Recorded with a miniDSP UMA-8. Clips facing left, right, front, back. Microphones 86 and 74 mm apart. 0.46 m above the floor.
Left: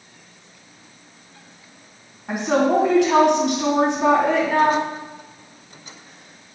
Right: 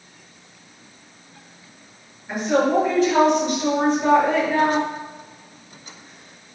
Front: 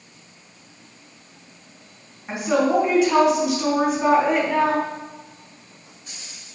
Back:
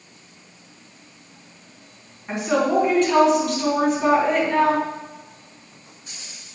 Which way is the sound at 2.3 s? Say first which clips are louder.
Left 1 dB, front 1 dB; 85° left.